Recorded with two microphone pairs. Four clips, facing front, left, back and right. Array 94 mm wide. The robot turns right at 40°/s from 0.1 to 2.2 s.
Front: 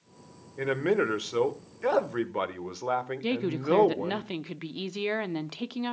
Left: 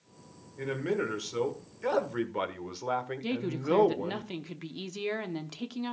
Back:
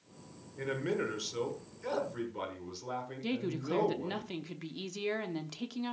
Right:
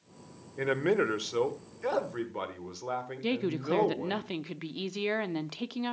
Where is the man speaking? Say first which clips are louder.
Right 4 dB, front 8 dB; 50° right, 1.3 m; by 4.2 s 15° left, 1.3 m.